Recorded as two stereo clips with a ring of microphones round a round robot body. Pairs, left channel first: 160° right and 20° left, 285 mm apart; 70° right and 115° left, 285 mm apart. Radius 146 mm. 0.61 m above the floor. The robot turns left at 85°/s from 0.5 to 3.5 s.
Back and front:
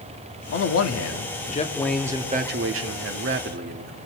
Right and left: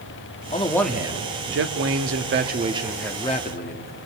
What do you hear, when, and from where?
0.5 s a man speaking: 125° right, 1.2 m; by 3.9 s 20° right, 1.2 m